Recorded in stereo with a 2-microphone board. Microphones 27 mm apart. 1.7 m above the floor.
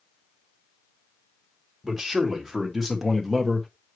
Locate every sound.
1.8 s a man speaking: 5° right (ahead or behind), 2.5 m; by 3.7 s 15° left (ahead or behind), 1.6 m